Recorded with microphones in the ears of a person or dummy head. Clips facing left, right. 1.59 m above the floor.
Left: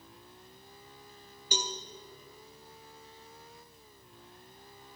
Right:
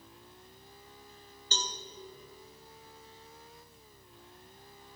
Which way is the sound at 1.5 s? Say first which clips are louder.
Left 4 dB; 15° left (ahead or behind).